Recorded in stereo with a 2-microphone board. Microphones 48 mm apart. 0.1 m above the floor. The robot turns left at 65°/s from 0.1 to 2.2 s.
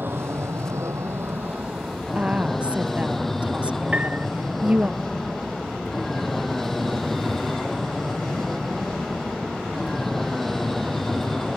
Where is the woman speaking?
25° right (ahead or behind).